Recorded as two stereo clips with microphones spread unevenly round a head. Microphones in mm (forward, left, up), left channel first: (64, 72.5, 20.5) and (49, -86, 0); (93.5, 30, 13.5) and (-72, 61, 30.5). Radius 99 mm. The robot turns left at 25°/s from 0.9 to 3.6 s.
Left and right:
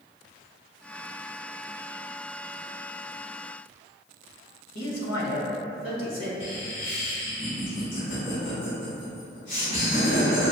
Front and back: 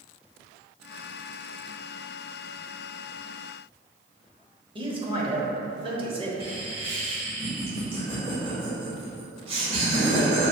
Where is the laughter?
115° left, 1.3 m.